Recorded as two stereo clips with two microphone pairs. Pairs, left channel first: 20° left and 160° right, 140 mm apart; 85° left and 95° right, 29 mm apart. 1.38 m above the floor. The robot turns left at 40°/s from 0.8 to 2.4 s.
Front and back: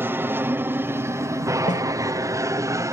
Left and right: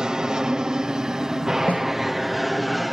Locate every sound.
0.0 s an aircraft: 115° right; by 2.9 s straight behind
1.7 s a snare drum: 55° left; by 1.9 s 45° left